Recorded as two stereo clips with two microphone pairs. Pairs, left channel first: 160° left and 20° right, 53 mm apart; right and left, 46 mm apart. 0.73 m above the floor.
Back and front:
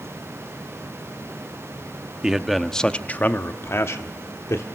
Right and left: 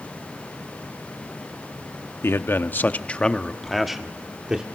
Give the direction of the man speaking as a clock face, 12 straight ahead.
3 o'clock.